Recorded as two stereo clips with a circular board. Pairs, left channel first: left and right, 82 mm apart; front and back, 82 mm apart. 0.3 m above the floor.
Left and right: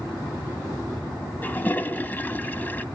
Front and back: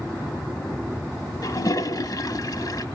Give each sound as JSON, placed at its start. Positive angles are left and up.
{"t": 1.4, "sound": "a toilet flushing", "azimuth_deg": 25, "distance_m": 0.8}